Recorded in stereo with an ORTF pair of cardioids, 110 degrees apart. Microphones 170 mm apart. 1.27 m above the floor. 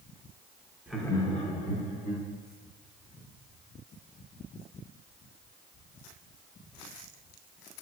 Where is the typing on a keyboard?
No typing on a keyboard in this recording.